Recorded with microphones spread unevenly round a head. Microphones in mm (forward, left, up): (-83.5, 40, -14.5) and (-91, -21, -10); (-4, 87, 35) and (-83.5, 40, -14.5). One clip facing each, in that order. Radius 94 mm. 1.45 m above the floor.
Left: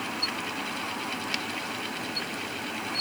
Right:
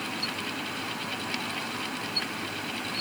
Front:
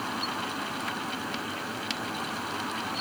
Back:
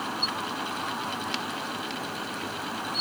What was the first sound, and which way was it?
Only background noise.